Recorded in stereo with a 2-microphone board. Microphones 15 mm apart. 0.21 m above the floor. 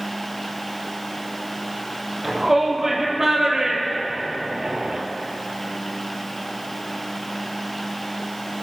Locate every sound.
2.2 s a shout: 10° right (ahead or behind), 6 m; by 5.0 s 40° right (ahead or behind), 3.5 m